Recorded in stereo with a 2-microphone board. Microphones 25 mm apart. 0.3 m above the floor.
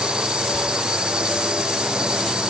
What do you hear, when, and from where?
0.0 s a drone: 40° right (ahead or behind)